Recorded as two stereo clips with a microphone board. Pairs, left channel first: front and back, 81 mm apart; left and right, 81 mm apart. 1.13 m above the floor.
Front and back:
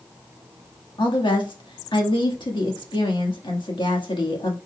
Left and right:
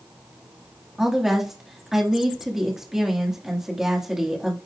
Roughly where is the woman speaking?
Ahead.